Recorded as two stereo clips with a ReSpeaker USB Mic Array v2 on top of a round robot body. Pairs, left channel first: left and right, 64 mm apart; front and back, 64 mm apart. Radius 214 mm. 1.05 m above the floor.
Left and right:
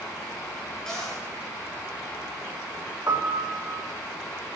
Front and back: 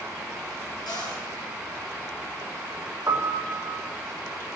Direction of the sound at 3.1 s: 135° right.